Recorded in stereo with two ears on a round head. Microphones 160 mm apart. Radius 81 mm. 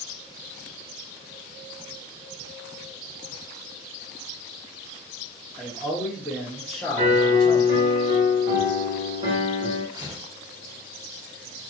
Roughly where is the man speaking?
Centre.